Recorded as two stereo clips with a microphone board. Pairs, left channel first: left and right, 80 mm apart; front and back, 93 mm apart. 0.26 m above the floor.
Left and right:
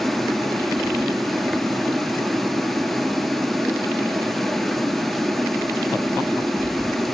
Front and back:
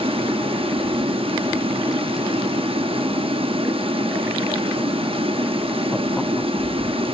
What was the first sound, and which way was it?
Running water, straight behind.